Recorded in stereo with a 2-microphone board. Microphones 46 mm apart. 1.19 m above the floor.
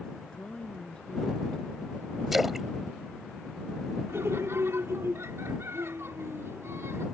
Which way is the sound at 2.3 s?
5° right (ahead or behind).